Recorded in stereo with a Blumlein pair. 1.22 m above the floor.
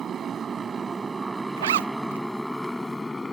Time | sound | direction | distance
0.0 | a motorcycle | 25° right | ?
1.6 | a zipper | 60° right | ?